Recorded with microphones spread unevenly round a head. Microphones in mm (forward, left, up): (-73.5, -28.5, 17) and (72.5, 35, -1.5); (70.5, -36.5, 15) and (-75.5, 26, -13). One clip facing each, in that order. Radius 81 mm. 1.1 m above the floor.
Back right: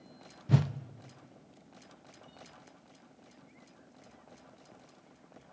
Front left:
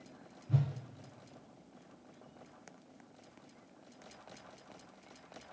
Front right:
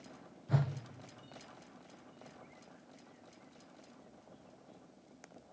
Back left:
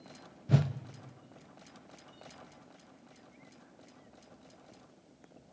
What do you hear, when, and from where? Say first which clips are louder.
0.5 s a whoosh: back right 6 dB, back left 5 dB; 150° right, 0.6 m